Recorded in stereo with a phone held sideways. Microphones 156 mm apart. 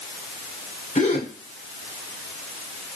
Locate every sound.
0.9 s a gasp: 50° left (ahead or behind), 2.5 m